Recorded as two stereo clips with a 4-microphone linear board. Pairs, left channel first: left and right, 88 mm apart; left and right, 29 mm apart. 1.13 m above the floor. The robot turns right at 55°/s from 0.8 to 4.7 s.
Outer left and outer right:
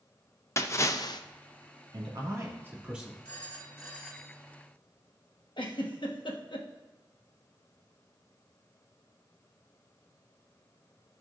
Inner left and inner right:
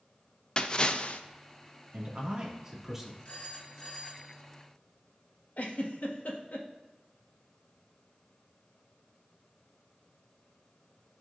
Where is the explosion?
No explosion in this recording.